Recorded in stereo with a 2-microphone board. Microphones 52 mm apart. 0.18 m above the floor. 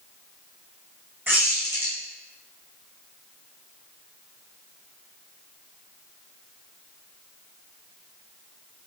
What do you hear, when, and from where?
1.3 s a squeak: 40° right (ahead or behind), 2 m